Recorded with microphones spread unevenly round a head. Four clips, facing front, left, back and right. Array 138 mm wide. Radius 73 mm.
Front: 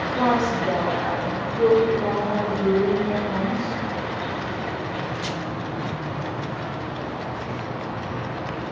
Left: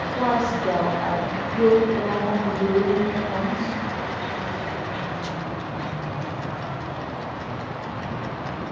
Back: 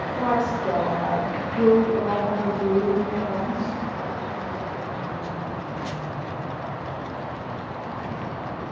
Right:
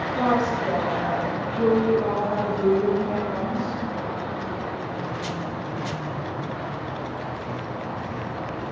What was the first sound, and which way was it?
A woman speaking, 5° right.